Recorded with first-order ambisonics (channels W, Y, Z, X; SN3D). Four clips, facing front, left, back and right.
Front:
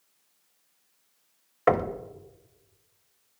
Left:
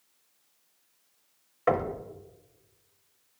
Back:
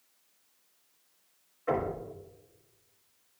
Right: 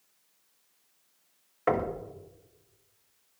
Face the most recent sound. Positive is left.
turn(degrees=0)